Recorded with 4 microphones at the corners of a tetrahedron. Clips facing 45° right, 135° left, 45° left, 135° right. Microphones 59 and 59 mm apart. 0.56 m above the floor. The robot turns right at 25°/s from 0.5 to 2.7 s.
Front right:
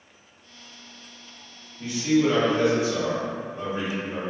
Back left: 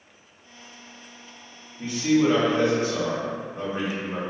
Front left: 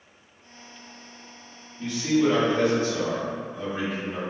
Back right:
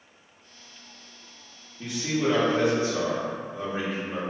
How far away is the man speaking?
About 1.1 m.